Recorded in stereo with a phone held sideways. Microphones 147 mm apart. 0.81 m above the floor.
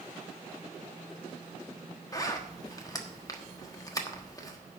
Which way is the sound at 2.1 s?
25° left (ahead or behind).